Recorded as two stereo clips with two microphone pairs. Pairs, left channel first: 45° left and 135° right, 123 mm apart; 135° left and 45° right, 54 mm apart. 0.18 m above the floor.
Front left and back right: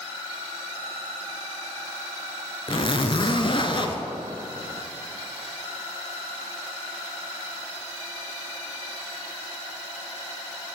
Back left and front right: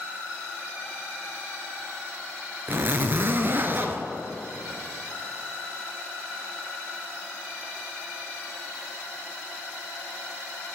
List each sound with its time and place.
2.7 s a zipper: straight ahead, 0.7 m